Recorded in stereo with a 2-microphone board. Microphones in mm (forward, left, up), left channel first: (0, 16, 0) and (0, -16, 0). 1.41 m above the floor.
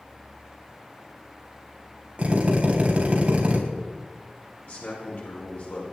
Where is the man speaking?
60° left (ahead or behind), 6.5 m.